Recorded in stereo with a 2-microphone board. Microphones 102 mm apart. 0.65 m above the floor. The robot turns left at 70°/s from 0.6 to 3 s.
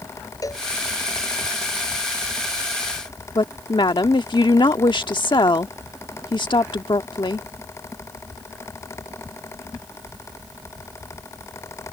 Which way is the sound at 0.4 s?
35° left (ahead or behind).